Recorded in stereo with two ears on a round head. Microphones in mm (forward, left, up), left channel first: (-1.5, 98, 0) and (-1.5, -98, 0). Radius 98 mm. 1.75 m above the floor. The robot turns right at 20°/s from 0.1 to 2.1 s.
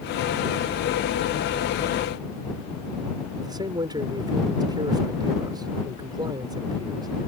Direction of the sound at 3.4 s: 20° right (ahead or behind).